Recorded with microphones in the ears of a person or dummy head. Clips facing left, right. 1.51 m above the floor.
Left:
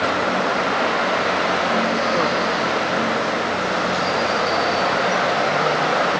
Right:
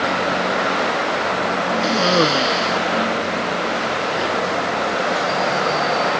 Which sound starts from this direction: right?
A cough, at 1.8 s.